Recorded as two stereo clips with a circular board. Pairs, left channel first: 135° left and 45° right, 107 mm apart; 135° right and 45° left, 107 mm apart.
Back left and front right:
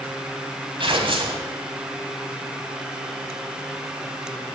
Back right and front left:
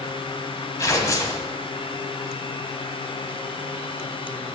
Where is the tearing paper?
75° right, 1.1 m.